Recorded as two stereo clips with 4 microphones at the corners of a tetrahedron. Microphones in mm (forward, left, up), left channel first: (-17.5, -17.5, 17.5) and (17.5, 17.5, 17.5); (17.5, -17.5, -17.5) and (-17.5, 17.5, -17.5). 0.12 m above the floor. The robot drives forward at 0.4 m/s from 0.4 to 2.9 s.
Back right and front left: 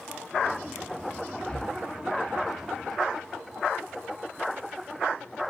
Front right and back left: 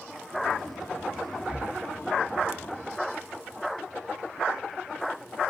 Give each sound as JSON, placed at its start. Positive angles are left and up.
{"t": 1.5, "sound": "breathing", "azimuth_deg": 170, "distance_m": 0.5}